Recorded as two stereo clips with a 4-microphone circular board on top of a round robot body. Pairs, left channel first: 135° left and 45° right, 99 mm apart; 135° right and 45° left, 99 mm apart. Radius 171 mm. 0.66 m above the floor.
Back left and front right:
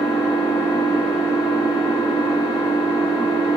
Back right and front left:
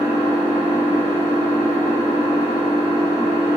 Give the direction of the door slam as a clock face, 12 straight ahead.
No door slam in this recording.